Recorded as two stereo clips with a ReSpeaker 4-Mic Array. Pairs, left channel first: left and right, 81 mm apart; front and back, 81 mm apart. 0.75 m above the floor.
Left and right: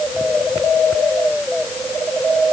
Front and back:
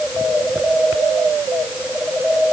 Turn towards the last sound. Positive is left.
No sound to turn to.